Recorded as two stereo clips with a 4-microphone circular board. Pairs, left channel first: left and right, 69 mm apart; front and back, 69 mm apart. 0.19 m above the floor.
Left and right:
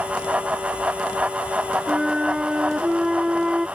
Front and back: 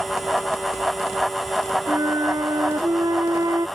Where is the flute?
170° right.